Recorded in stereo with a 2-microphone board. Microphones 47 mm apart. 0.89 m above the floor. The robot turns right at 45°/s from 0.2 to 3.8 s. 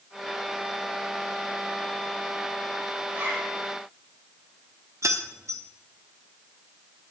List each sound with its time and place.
3.1 s a zipper: 45° right (ahead or behind), 5 m; by 3.5 s 65° right (ahead or behind), 5 m
5.0 s keys jangling: 85° right, 1.1 m